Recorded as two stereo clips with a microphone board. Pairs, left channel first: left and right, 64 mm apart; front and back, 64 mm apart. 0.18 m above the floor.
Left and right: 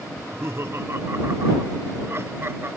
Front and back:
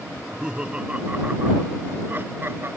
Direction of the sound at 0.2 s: 105° right.